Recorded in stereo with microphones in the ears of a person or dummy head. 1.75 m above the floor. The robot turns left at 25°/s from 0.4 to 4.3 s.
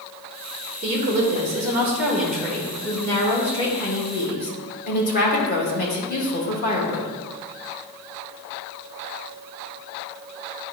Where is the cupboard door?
No cupboard door in this recording.